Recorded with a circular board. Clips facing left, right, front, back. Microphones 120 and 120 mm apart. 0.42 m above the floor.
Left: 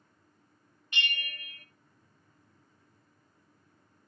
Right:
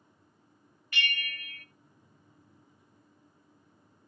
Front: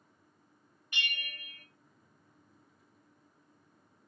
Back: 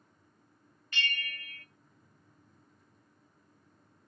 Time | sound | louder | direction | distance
0.9 | a bell | right 1 dB, back 3 dB | 55° left | 0.5 m